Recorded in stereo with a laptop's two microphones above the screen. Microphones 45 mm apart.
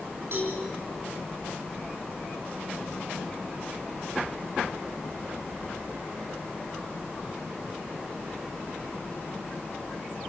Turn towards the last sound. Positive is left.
turn(degrees=-55)  # may be behind; listen again after turning